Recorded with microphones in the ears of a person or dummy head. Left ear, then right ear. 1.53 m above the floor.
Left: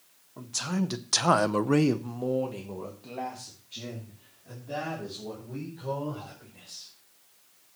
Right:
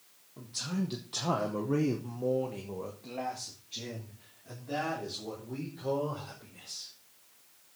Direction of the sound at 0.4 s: 35° left (ahead or behind).